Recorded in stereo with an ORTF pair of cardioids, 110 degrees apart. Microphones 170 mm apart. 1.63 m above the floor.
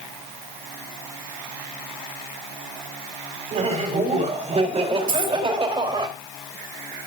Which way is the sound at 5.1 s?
55° right.